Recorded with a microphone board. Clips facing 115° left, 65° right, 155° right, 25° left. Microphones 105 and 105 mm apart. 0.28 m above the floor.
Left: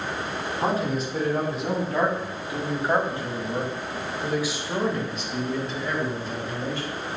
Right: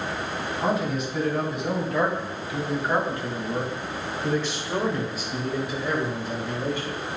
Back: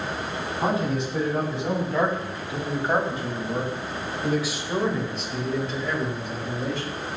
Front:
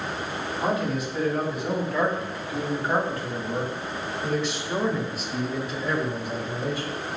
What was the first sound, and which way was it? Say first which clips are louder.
A man speaking: even, back 1 dB; 150° left.